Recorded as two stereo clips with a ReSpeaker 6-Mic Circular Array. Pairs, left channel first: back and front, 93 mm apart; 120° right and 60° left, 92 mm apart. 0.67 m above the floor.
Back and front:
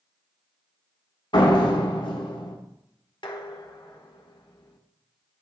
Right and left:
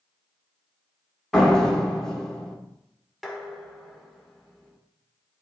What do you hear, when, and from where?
1.3 s a door slam: 155° left, 1.3 m
3.2 s dishes clattering: 150° left, 1.2 m